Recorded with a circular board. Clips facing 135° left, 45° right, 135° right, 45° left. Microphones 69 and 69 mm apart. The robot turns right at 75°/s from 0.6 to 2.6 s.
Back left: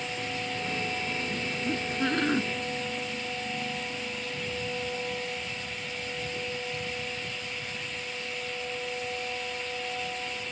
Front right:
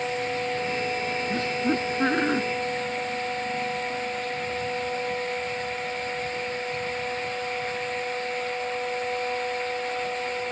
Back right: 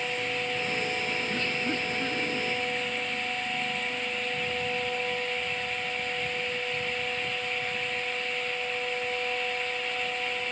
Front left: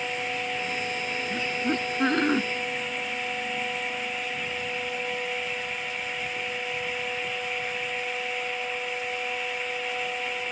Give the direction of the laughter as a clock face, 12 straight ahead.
2 o'clock.